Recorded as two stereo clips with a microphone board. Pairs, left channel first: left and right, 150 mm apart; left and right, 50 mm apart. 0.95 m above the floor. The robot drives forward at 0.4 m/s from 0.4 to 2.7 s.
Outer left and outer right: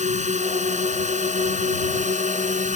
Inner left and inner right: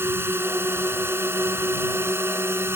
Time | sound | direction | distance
0.0 | a drone | 55° right (ahead or behind) | ?